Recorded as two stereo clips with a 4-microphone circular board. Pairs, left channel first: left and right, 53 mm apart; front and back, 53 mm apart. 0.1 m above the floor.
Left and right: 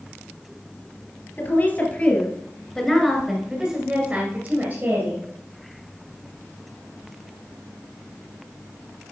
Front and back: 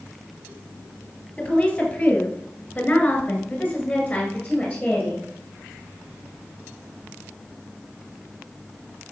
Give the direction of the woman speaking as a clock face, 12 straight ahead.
10 o'clock.